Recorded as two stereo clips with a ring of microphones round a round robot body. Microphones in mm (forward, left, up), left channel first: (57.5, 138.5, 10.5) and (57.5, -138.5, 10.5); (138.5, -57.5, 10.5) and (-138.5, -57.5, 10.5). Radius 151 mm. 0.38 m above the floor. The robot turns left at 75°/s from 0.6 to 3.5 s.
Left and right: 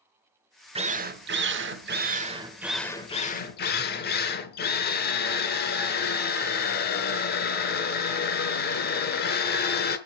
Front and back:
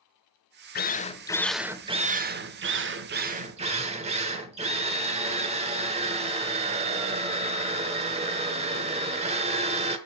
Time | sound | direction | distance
0.8 | a drill | 30° right | 1.0 m